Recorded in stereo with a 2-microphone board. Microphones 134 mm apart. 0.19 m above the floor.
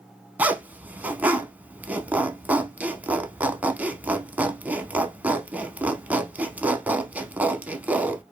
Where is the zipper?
10° right (ahead or behind), 0.5 m.